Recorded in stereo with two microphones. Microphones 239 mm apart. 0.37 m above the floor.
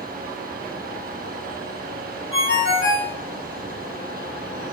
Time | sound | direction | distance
2.3 | a ringtone | 70° right (ahead or behind) | 1.9 m